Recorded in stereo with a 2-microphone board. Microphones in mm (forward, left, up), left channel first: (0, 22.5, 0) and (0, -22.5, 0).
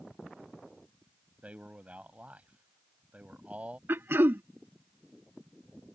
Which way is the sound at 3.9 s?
60° right (ahead or behind).